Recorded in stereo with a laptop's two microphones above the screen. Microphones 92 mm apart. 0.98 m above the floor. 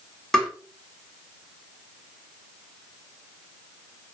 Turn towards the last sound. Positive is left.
turn(degrees=5)  # may be behind; listen again after turning